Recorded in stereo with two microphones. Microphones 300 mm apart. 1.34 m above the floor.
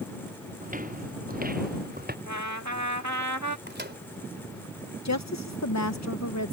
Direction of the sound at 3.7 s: 35° right (ahead or behind).